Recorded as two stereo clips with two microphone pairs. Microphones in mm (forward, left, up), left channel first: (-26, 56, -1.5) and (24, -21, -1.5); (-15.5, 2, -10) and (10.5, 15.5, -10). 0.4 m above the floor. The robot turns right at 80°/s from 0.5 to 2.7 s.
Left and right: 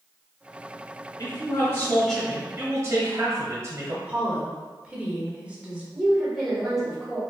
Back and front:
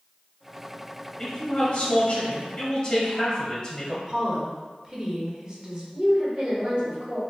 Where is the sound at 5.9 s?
30° left, 1.5 m.